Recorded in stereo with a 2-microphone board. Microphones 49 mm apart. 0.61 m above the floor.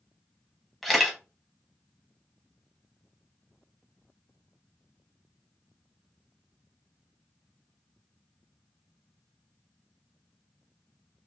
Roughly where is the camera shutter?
Centre.